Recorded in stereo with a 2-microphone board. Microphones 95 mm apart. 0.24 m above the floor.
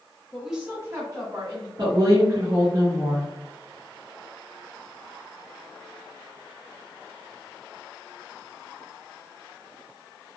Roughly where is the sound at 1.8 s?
Right.